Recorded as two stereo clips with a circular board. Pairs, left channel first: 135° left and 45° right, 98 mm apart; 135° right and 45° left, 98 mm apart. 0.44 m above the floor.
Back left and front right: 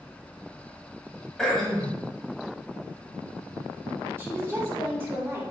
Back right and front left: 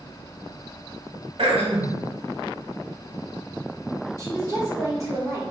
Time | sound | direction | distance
1.4 | throat clearing | 50° left | 0.9 m
4.2 | a woman speaking | 10° left | 1.3 m